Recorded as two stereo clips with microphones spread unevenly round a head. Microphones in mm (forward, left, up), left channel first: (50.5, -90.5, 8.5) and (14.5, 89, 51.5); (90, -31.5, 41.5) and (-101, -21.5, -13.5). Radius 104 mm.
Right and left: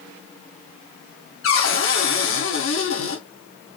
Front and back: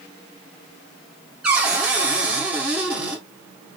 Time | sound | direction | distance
1.4 | a cupboard door | 95° right | 2 m